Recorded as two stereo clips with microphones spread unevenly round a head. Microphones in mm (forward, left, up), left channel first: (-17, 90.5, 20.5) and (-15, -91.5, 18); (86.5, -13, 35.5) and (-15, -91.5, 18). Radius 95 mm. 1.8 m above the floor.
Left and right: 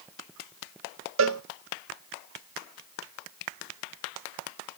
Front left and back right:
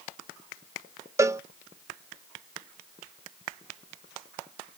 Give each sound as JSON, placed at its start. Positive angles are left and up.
{"t": 1.2, "sound": "a cowbell", "azimuth_deg": -70, "distance_m": 0.6}